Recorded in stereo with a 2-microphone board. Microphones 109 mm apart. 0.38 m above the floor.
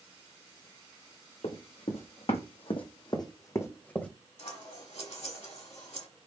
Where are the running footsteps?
70° left (ahead or behind), 1.2 m; by 4.1 s 10° left (ahead or behind), 0.9 m.